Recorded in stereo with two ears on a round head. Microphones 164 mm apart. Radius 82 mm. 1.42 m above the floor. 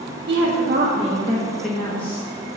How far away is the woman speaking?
About 1.5 m.